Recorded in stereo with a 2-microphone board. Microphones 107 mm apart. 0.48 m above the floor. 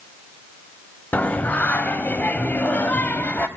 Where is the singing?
15° left (ahead or behind), 0.7 m.